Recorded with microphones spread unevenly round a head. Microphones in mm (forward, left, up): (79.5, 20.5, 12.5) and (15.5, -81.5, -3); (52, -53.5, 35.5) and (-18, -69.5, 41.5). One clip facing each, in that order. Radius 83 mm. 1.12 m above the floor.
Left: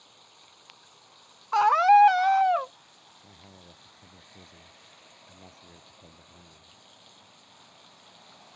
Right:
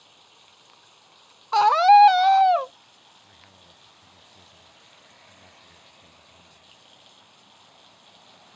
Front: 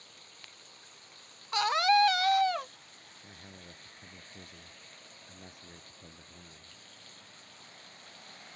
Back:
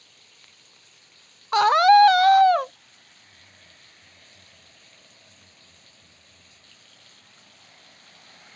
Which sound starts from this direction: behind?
A scream, at 1.5 s.